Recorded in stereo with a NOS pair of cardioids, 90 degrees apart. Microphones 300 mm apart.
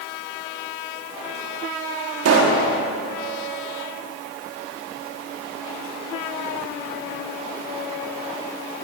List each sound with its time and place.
2.2 s a pop: 55° right, 5 m